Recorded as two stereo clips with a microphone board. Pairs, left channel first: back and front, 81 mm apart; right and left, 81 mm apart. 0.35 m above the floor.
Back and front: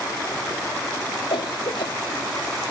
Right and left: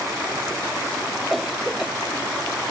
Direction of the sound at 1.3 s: Straight behind.